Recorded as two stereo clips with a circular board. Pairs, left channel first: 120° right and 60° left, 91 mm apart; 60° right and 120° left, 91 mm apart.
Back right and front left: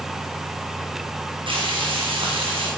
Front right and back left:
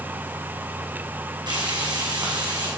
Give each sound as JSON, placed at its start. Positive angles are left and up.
{"t": 1.5, "sound": "frying", "azimuth_deg": 80, "distance_m": 5.5}